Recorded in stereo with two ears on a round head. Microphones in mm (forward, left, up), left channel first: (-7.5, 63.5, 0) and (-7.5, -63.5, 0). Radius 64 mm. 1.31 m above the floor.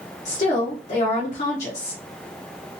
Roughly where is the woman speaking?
Left.